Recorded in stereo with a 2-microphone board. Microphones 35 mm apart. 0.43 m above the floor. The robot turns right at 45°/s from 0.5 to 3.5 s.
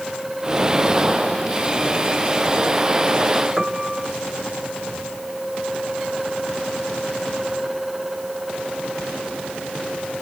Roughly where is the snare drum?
No snare drum in this recording.